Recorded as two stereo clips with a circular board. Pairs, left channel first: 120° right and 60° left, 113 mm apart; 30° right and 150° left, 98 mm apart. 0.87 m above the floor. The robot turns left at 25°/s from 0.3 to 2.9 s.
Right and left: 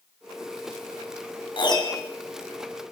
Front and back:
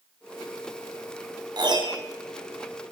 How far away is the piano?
About 2.5 m.